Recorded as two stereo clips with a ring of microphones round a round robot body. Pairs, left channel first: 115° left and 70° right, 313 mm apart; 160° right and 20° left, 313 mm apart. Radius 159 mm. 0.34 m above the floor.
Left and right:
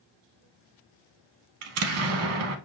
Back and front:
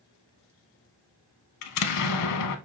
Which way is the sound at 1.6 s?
115° right.